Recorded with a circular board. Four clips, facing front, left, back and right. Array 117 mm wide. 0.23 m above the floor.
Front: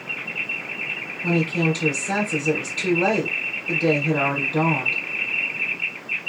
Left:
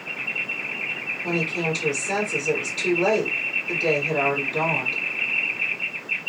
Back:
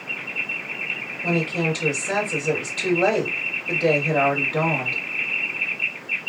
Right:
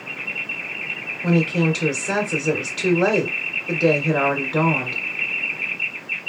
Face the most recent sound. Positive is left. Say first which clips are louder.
# right 6 dB, front 2 dB
turn(degrees=-100)